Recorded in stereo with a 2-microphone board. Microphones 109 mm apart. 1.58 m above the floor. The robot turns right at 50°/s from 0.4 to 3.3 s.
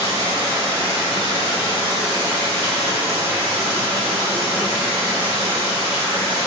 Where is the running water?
60° left, 1.7 m; by 6.5 s 155° right, 1.7 m.